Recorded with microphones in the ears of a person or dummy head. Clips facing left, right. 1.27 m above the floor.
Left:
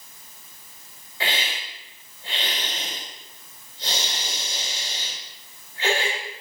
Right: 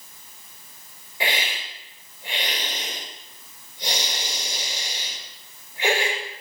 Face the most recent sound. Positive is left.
turn(degrees=-15)  # may be behind; listen again after turning